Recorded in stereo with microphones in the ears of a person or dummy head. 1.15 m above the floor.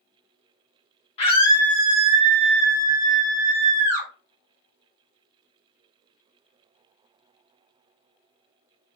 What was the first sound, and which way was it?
A scream, 30° left (ahead or behind).